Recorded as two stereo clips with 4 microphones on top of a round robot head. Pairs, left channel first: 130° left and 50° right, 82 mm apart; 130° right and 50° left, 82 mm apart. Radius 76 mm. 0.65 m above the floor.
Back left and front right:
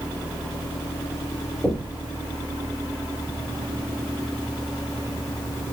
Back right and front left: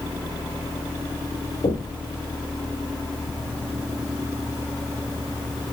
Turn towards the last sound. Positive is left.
turn(degrees=-125)